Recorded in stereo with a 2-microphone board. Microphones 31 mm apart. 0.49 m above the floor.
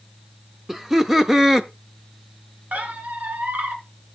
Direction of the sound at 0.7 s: 10° right (ahead or behind).